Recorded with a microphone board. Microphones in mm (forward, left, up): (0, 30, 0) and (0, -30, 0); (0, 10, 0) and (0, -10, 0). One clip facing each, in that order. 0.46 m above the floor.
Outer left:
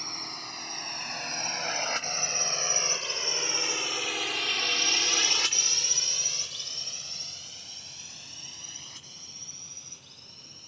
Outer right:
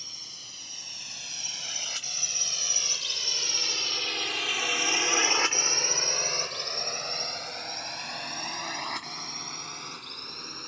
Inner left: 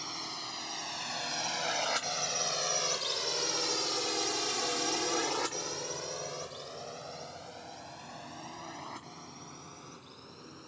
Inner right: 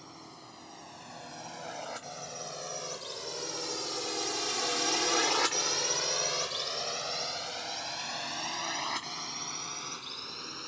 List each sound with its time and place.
0.0 s a drone: 55° left (ahead or behind); by 10.7 s 65° right (ahead or behind)